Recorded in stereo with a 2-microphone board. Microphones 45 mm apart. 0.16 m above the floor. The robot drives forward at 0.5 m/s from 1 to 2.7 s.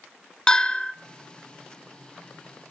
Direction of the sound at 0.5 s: 15° left (ahead or behind).